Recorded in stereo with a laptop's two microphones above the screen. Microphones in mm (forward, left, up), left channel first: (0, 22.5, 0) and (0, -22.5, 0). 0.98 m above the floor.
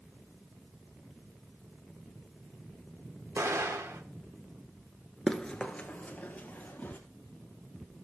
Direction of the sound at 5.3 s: 10° left (ahead or behind).